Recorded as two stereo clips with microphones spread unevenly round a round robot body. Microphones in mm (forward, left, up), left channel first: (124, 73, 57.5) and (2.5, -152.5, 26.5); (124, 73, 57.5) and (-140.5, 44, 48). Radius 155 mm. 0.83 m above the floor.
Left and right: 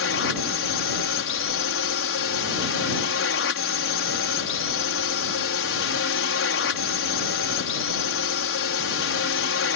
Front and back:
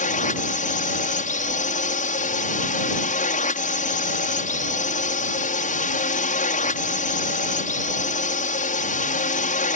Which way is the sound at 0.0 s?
55° left.